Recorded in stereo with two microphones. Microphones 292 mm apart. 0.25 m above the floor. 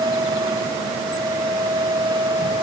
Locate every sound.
Only background noise.